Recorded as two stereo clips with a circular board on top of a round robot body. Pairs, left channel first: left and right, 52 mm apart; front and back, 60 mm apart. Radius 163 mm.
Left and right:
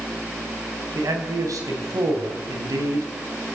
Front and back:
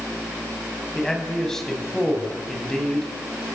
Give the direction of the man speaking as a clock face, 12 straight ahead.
3 o'clock.